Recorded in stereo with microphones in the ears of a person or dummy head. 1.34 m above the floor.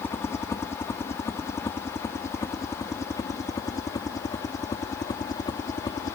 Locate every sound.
0.0 s a helicopter: 10° left (ahead or behind); by 6.2 s 20° left (ahead or behind)